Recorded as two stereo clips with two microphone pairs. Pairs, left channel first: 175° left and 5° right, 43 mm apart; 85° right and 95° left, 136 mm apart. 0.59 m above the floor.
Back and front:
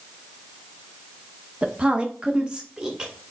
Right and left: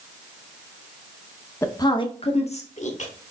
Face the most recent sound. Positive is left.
turn(degrees=-80)